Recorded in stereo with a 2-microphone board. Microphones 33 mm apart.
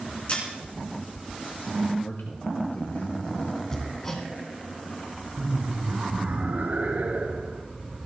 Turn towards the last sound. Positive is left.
turn(degrees=-60)  # may be behind; listen again after turning